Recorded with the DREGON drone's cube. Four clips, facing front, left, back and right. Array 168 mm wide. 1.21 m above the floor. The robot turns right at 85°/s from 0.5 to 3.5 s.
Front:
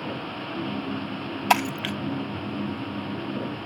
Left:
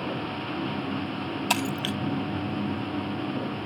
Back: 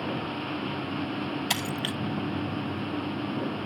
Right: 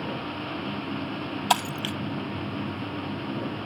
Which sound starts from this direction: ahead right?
Breaking glass, at 1.5 s.